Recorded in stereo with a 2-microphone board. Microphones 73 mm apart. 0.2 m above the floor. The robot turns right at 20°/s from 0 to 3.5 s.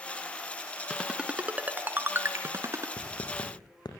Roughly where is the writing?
Left.